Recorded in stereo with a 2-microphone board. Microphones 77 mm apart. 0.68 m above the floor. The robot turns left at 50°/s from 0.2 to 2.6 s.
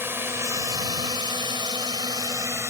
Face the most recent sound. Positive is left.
turn(degrees=-35)  # may be behind; listen again after turning